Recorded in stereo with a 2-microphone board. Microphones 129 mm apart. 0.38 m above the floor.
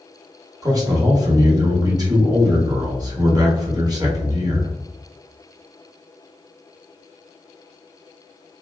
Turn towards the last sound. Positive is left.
turn(degrees=-30)  # may be behind; listen again after turning